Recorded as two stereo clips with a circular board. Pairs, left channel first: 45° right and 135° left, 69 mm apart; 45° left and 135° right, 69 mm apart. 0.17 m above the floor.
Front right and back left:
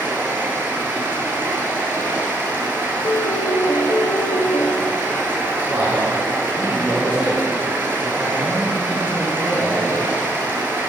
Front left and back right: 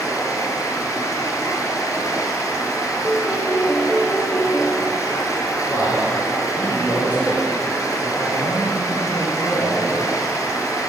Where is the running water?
75° left, 0.8 m.